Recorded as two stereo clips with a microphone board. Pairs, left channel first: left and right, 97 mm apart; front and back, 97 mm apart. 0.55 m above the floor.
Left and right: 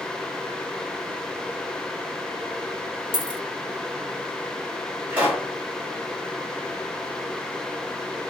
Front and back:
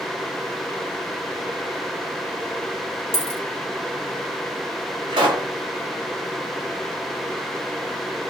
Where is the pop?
160° right, 1.3 m.